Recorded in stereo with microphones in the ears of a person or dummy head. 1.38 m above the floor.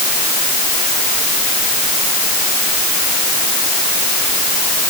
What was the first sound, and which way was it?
Only background noise.